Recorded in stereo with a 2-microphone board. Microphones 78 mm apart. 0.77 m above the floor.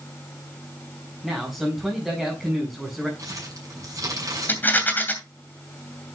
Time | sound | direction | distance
1.2 | a man speaking | 10° right (ahead or behind) | 5 m
3.2 | crumpling | 45° right (ahead or behind) | 6.5 m
4.5 | a rattle | 25° left (ahead or behind) | 2.5 m